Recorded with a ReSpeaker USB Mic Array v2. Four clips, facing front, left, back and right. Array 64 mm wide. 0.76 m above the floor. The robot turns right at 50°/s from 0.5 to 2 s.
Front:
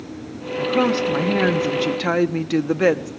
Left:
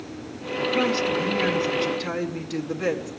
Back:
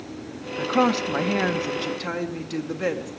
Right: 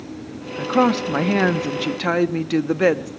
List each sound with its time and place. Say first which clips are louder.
0.6 s a woman speaking: right 5 dB, front 2 dB; 125° right, 1.0 m; by 3.1 s 50° right, 1.0 m